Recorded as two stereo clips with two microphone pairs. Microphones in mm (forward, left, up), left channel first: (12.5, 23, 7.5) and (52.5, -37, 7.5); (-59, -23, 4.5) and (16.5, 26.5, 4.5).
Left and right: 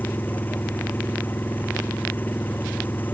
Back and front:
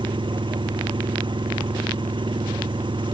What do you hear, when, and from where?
0.0 s an engine running: 60° left